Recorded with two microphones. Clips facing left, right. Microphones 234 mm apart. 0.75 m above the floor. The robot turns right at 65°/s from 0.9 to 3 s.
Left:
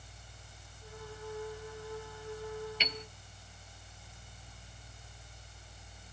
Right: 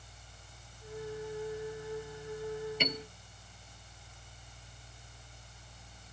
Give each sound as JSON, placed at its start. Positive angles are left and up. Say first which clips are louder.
{"t": 2.8, "sound": "a piano", "louder": "right 6 dB", "side_deg": -55}